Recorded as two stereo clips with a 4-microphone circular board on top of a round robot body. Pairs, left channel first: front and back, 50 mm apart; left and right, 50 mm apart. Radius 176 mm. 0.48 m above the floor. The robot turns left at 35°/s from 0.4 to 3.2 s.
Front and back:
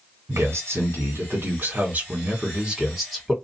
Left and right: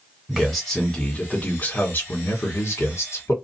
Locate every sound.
0.3 s a man speaking: 175° right, 2.0 m; by 3.3 s 85° left, 2.0 m